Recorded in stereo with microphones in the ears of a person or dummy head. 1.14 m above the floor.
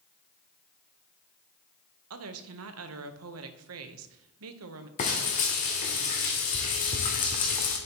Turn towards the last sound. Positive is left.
turn(degrees=40)  # may be behind; listen again after turning